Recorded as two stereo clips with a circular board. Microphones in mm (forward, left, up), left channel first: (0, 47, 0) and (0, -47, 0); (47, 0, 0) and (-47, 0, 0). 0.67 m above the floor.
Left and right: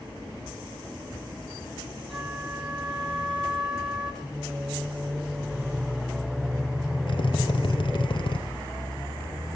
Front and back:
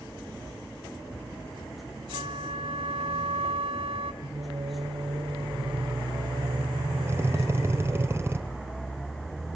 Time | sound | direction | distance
2.1 | a flute | 175° right | 1.7 m
4.2 | singing | 165° right | 1.7 m
7.1 | a drill | 115° left | 1.8 m